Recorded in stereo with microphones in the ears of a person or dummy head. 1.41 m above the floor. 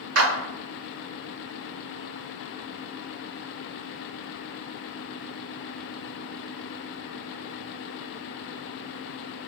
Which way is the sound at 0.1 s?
70° right (ahead or behind).